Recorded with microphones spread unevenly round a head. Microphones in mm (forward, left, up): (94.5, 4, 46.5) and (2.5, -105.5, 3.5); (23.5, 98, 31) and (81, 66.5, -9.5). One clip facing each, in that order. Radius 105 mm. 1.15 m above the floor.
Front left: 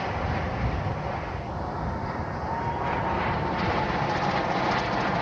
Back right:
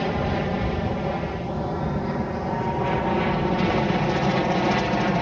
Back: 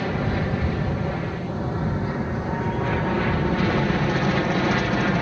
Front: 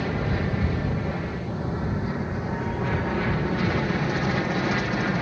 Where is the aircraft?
130° right; by 5.2 s 140° right.